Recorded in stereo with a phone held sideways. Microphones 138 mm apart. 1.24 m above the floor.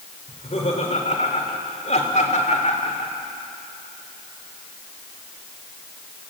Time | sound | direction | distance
0.3 | laughter | 50° left (ahead or behind) | 5 m